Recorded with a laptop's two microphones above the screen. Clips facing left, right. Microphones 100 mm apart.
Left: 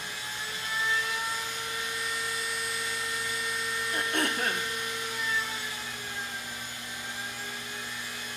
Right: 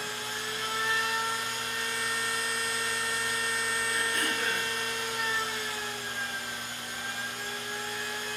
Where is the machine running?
80° right, 4 m.